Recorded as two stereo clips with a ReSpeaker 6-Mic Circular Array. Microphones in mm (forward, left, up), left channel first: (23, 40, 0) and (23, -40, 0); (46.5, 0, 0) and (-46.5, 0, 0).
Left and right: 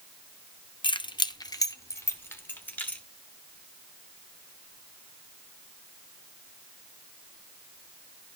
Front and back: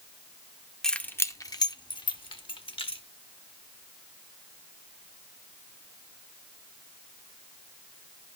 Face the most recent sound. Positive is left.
turn(degrees=20)